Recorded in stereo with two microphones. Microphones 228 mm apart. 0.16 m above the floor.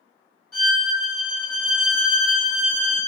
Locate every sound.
0.5 s a violin: 85° left, 1.5 m